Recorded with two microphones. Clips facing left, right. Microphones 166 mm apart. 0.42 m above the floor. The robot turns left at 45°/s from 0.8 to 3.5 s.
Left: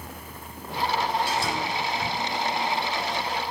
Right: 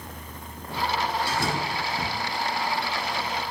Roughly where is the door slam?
Behind right.